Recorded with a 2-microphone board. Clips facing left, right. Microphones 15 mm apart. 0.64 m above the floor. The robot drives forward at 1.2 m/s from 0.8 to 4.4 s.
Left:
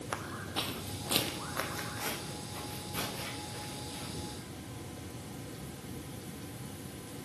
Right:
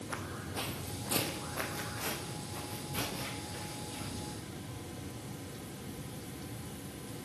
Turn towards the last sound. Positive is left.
turn(degrees=0)  # may be behind; listen again after turning